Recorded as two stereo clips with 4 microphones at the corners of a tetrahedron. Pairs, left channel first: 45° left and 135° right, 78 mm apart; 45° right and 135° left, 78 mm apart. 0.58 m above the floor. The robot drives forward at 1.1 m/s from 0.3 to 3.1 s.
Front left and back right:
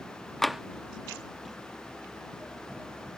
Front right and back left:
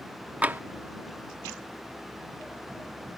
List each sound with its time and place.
0.4 s tapping: 120° left; by 0.6 s 150° left